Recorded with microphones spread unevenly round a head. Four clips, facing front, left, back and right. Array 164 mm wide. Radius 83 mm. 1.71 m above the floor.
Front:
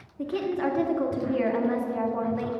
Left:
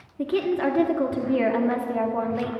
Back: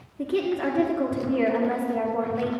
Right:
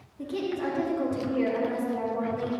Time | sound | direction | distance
0.2 | a woman speaking | 105° left | 1.4 m